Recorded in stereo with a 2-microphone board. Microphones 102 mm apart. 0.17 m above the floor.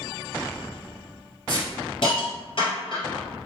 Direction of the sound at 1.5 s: 60° left (ahead or behind).